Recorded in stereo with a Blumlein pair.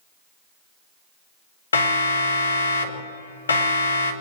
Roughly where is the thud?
I don't hear a thud.